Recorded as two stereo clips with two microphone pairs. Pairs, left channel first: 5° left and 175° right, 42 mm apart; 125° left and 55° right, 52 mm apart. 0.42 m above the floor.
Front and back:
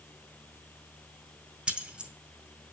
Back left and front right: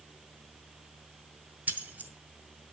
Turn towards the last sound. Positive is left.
turn(degrees=-110)